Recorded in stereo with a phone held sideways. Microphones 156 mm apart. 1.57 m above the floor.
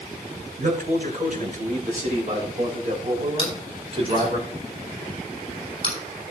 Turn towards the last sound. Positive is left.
turn(degrees=35)  # may be behind; listen again after turning